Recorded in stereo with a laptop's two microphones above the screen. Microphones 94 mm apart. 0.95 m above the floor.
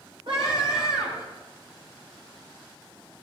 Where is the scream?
75° right (ahead or behind), 6.5 m.